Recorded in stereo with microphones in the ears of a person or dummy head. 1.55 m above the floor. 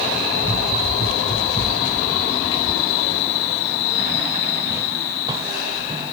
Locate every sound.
0.4 s running footsteps: 40° left (ahead or behind), 2.5 m; by 6.1 s 25° right (ahead or behind), 2.5 m